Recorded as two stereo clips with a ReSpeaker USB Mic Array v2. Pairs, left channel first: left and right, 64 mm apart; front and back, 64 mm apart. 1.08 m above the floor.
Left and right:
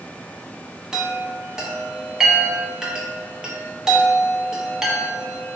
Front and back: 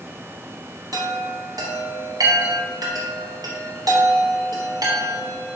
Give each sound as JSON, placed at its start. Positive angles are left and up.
{"t": 0.9, "sound": "a chime", "azimuth_deg": -170, "distance_m": 0.7}